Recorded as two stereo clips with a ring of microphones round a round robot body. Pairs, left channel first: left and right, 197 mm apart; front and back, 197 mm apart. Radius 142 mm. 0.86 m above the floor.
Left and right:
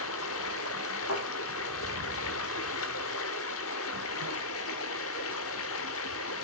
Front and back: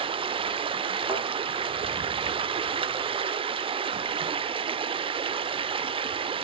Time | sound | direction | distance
0.0 | running water | 115° left | 1.0 m
1.1 | a thud | 105° left | 7.5 m